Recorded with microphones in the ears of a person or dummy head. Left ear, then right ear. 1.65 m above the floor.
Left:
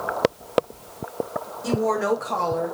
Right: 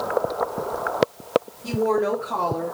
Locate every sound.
1.6 s a woman speaking: 65° left (ahead or behind), 3.5 m; by 2.8 s 75° left (ahead or behind), 2.5 m